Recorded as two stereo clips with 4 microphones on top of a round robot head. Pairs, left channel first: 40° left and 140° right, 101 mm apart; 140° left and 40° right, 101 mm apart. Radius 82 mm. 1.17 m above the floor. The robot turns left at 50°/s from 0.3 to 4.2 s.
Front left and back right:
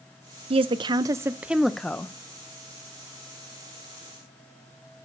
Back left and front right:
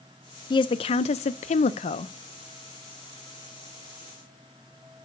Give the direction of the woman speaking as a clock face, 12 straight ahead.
6 o'clock.